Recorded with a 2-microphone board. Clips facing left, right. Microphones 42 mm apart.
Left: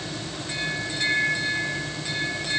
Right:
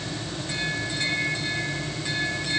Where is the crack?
No crack in this recording.